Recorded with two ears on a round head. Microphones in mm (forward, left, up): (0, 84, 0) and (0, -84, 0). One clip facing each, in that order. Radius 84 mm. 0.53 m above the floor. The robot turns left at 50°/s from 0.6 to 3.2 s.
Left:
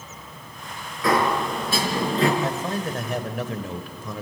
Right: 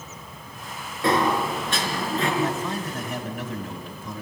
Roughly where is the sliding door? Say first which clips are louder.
Even; behind right.